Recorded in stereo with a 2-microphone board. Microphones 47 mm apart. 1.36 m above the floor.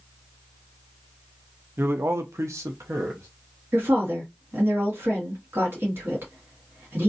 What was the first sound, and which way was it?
A man speaking, 50° right (ahead or behind).